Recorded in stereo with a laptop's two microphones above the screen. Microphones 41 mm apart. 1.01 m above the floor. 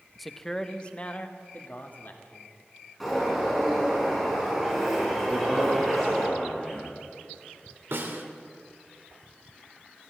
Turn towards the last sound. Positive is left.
turn(degrees=-80)